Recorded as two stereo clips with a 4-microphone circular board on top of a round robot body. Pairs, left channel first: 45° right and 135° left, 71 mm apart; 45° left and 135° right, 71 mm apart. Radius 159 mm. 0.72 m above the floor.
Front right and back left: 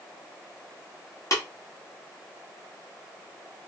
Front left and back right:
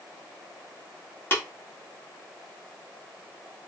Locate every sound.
1.3 s tapping: 10° right, 1.6 m